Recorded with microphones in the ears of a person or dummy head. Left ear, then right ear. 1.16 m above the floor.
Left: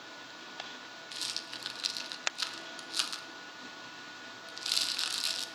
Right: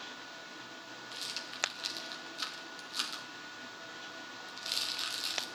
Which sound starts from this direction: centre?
A rattle, at 1.1 s.